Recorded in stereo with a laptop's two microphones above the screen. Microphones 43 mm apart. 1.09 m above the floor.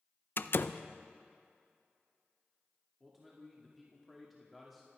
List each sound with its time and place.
0.4 s a door slam: 55° left (ahead or behind), 0.5 m
3.0 s a man speaking: centre (ahead or behind), 2.5 m